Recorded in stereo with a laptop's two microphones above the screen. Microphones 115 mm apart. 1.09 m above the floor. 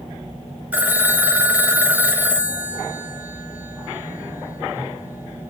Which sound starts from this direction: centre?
A phone ringing, at 0.7 s.